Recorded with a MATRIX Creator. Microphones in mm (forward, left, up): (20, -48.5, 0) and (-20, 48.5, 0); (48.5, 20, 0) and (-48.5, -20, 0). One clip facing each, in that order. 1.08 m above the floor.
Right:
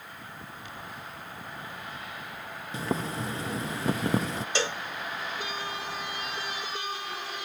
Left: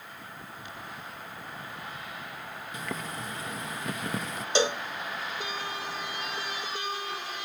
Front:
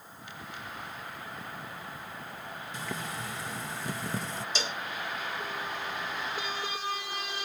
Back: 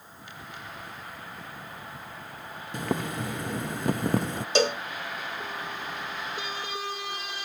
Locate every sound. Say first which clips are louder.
2.7 s boiling: right 6 dB, back 9 dB; 125° right
4.5 s a cowbell: left 6 dB, back 15 dB; straight behind